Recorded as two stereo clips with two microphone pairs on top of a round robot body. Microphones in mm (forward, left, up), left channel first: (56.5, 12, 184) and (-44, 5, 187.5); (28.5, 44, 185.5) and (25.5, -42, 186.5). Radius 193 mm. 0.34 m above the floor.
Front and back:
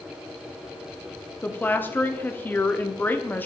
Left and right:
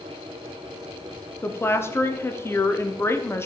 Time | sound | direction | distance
1.4 | a woman speaking | 55° left | 1.1 m